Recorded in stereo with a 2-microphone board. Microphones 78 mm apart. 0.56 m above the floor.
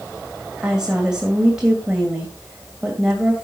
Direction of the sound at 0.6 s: 10° right (ahead or behind).